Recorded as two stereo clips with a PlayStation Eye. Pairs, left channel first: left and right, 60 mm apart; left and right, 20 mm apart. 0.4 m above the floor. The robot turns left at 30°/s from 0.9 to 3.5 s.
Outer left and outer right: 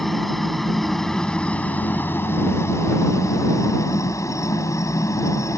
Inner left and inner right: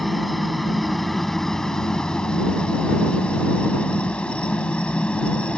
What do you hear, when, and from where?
0.0 s a helicopter: centre (ahead or behind); by 5.6 s 65° left (ahead or behind)